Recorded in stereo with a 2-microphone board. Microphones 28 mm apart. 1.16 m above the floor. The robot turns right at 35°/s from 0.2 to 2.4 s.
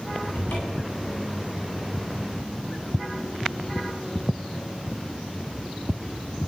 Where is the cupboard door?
85° left, 9.5 m; by 1.0 s 65° left (ahead or behind), 9.5 m.